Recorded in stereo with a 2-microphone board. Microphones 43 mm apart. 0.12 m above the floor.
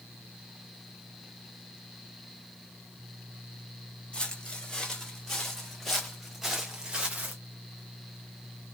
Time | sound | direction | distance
4.1 | footsteps | 15° left (ahead or behind) | 2 m